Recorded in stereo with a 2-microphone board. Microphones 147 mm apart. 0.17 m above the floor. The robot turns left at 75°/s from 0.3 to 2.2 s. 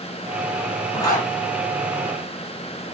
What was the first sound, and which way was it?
A zipper, 25° left (ahead or behind).